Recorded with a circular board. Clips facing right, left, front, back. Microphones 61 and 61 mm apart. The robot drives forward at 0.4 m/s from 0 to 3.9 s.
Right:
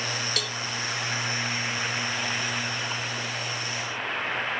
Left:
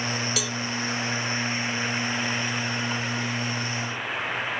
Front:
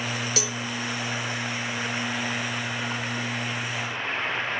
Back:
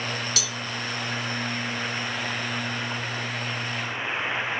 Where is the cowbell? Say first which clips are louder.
Left 2 dB, front 2 dB; 10° left; by 0.6 s 15° left.